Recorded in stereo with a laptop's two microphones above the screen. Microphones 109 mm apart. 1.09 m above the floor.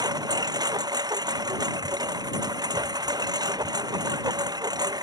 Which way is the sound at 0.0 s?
35° right (ahead or behind).